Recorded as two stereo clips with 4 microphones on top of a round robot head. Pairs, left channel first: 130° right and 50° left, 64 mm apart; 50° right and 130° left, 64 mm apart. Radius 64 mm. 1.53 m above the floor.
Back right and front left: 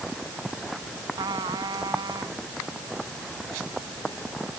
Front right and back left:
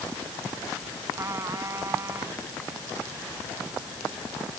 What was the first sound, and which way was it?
A trumpet, 80° left.